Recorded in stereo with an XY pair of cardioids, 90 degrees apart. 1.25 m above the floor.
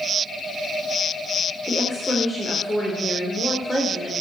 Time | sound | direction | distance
1.7 | a woman speaking | 20° left | 3.5 m